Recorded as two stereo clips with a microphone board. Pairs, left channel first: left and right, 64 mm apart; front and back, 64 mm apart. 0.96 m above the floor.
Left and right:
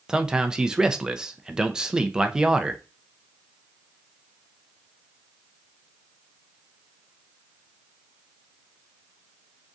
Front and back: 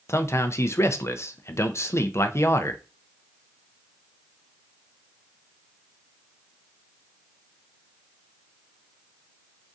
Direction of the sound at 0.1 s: 15° right.